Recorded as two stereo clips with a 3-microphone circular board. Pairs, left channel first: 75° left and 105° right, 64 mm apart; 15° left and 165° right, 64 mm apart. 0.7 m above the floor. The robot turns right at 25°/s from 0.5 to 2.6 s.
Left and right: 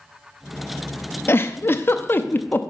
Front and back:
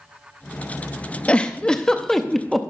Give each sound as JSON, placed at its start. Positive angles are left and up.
{"t": 1.3, "sound": "a giggle", "azimuth_deg": 75, "distance_m": 0.6}